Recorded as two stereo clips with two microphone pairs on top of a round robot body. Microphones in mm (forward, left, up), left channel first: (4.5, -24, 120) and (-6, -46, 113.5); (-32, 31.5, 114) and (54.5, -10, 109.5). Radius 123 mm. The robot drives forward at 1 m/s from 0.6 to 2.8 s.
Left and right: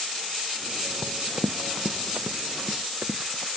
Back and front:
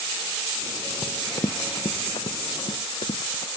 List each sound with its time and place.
1.0 s running footsteps: 125° right; by 3.5 s 170° right